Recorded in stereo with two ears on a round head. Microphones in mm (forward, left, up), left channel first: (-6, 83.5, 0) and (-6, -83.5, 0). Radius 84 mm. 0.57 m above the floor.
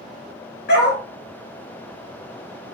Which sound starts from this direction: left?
A dog barking, at 0.7 s.